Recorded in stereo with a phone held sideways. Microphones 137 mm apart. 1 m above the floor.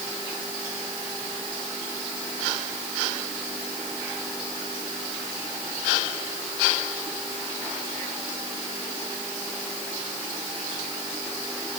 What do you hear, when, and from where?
Only background noise.